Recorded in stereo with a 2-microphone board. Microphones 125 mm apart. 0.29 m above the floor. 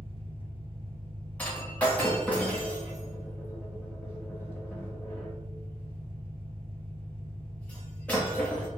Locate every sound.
0.0 s an engine running: 45° right (ahead or behind), 1.5 m
1.4 s breaking glass: 10° left (ahead or behind), 1.2 m